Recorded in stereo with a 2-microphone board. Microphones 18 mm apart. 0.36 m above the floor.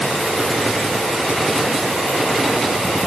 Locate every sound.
Only background noise.